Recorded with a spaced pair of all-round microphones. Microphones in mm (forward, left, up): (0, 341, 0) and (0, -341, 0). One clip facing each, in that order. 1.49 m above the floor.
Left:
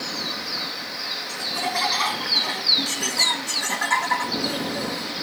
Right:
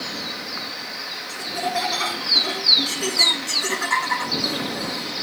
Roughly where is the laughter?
Left.